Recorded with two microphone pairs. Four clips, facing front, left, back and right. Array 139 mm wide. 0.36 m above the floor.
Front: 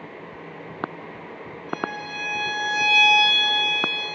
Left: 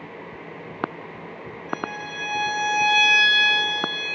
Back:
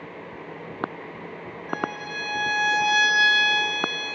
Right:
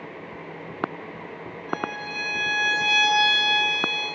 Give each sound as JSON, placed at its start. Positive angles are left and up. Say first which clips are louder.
{"t": 1.7, "sound": "a violin", "louder": "right 1 dB, even", "azimuth_deg": -175, "distance_m": 5.5}